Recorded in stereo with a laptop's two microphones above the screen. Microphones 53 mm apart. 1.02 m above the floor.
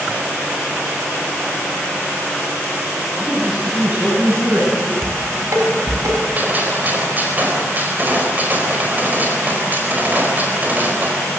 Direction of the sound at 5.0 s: 80° right.